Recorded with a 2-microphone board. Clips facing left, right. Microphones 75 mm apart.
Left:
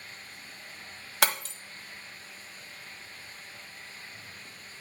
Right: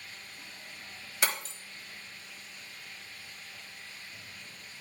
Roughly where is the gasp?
I don't hear a gasp.